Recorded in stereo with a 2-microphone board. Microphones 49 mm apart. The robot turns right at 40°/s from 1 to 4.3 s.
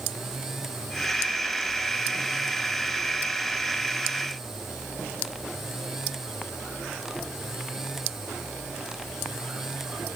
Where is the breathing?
I don't hear breathing.